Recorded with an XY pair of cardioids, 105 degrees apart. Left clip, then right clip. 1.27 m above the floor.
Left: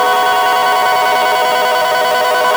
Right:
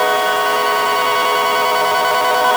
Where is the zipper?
No zipper in this recording.